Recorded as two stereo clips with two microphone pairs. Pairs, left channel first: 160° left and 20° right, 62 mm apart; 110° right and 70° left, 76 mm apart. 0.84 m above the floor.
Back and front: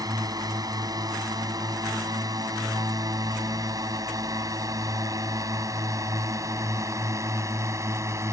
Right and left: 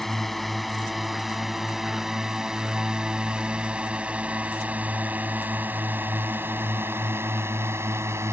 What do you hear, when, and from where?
0.0 s a drone: 25° right; by 8.3 s 15° left